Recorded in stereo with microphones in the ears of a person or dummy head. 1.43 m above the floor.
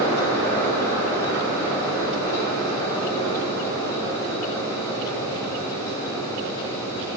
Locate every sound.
0.0 s a fan: 20° left (ahead or behind), 3.5 m